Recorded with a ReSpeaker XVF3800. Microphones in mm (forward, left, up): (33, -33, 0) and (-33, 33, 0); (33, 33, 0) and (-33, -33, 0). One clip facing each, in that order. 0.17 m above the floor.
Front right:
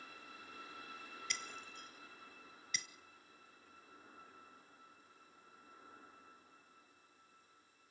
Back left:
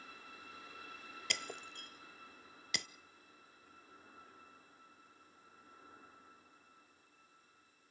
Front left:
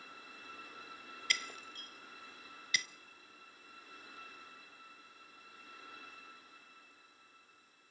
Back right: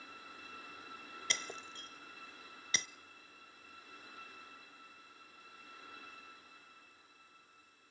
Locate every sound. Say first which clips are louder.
1.3 s breaking glass: back left 6 dB, front left 2 dB; 165° left, 0.5 m